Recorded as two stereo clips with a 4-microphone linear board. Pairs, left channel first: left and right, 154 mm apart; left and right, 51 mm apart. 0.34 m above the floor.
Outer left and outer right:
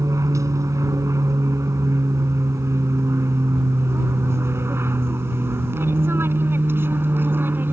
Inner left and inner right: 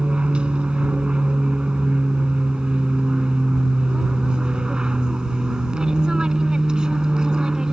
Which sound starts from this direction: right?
An aircraft, at 0.0 s.